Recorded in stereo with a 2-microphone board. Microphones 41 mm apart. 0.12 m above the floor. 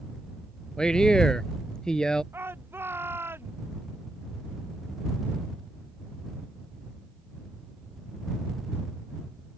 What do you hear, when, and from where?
0.8 s a man speaking: 20° left (ahead or behind)
2.3 s a shout: 65° right (ahead or behind)